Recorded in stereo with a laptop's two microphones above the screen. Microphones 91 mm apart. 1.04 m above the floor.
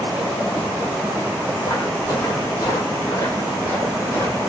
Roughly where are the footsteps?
Left.